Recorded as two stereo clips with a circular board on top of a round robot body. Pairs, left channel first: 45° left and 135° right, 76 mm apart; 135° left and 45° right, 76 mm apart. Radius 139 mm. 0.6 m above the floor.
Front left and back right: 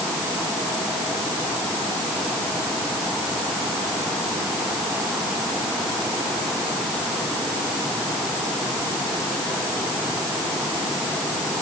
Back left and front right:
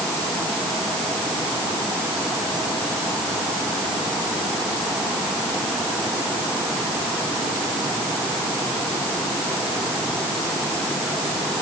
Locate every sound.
Only background noise.